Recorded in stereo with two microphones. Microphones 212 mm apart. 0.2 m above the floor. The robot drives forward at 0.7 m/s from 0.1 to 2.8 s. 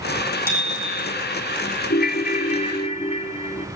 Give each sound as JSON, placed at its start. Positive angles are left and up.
{"t": 0.5, "sound": "a bicycle bell", "side_deg": -10, "distance_m": 6.0}
{"t": 1.9, "sound": "a ringtone", "side_deg": 50, "distance_m": 0.6}